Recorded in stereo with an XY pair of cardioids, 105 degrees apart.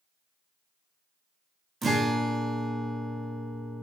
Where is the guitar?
30° right, 0.7 m.